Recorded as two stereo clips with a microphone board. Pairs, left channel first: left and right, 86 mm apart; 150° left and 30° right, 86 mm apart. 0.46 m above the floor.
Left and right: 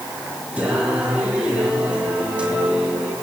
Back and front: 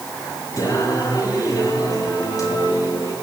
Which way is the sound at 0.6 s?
165° right.